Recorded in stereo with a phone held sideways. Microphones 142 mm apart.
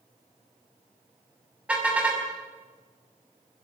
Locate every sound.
1.7 s a car horn: 10° right (ahead or behind), 5.5 m